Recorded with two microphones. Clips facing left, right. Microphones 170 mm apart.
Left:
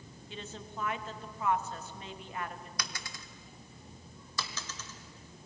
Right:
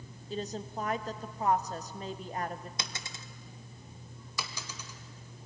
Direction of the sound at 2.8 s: 25° right (ahead or behind).